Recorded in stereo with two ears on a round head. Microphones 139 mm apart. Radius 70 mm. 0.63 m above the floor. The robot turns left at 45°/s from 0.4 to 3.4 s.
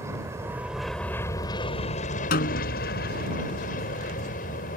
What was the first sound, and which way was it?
An aircraft, 160° right.